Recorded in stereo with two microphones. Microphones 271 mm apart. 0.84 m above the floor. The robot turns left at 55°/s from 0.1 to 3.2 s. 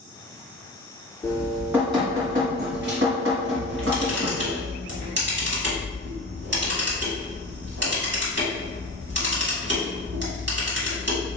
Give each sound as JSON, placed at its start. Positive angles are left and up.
{"t": 1.2, "sound": "dripping", "azimuth_deg": 20, "distance_m": 1.4}
{"t": 3.6, "sound": "a camera shutter", "side_deg": -40, "distance_m": 1.7}